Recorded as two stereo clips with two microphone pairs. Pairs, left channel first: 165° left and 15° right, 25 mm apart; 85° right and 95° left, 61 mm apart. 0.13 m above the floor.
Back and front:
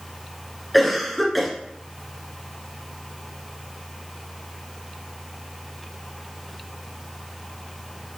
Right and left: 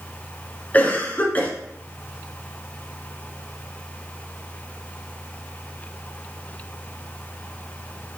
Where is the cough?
110° right, 1.3 m.